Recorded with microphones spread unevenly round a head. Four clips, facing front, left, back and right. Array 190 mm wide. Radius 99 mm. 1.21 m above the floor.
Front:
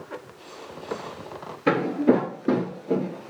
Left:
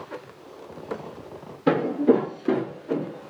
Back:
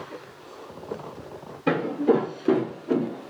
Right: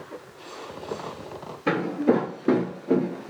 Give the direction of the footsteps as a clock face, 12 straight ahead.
11 o'clock.